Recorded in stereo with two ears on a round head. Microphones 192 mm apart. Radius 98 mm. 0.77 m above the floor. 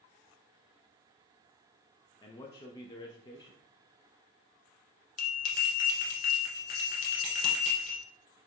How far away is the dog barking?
I don't hear a dog barking.